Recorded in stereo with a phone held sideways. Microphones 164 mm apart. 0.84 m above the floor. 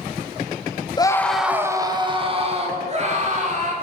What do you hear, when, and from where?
1.0 s a scream: 25° left (ahead or behind), 0.9 m; by 3.7 s 50° right (ahead or behind), 3.5 m